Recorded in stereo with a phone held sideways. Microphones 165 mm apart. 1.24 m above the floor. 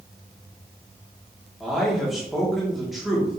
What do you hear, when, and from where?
1.6 s a man speaking: centre (ahead or behind), 3 m